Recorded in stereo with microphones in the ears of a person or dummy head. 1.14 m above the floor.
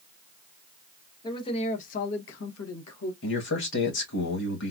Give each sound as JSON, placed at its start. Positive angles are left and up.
{"t": 1.2, "sound": "a man speaking", "side_deg": 30, "distance_m": 1.1}
{"t": 3.2, "sound": "a man speaking", "side_deg": 55, "distance_m": 1.4}